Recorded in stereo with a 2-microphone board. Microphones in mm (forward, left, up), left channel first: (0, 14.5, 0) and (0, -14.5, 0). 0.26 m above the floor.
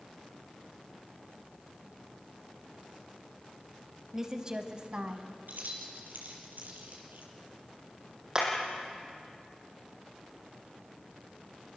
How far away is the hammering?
About 5.5 m.